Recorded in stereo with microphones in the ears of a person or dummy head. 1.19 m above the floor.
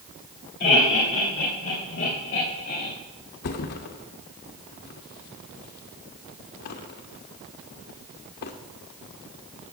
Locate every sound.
0.6 s laughter: 35° left (ahead or behind), 2.5 m
3.4 s a thud: 50° left (ahead or behind), 0.6 m